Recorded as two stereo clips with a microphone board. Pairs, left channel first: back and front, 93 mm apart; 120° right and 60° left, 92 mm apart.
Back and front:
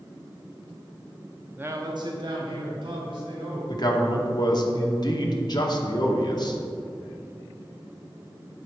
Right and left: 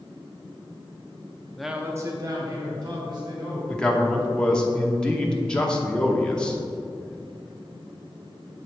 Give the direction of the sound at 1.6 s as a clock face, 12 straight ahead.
2 o'clock.